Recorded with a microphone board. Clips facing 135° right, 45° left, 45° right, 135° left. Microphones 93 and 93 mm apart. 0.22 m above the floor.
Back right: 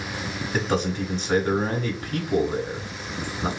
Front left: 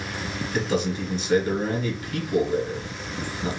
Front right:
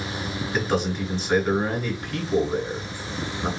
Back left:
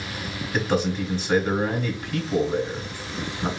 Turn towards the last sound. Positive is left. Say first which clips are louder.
# even, back left 1 dB
turn(degrees=-145)